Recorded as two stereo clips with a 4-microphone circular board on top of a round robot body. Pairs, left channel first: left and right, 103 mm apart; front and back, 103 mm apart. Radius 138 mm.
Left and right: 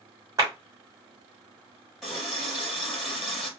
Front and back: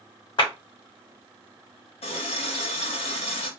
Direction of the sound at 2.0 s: Straight ahead.